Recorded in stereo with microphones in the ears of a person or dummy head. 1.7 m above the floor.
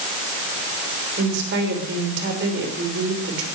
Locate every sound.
1.2 s a woman speaking: 65° right (ahead or behind), 6.5 m